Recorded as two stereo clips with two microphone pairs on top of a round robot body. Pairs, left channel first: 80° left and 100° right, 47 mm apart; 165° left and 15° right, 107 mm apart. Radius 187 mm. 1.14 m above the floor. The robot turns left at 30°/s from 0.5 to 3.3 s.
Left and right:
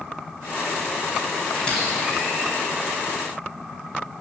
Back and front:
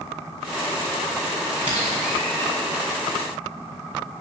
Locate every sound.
1.6 s a squeak: 10° left, 4 m; by 2.5 s 15° right, 4 m